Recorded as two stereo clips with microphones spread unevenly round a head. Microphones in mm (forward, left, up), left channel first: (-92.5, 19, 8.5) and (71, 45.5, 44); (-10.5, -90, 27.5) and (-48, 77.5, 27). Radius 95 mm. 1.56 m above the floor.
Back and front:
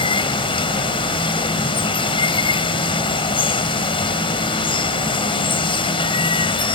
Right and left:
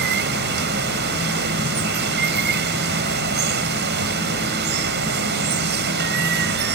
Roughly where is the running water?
Behind left.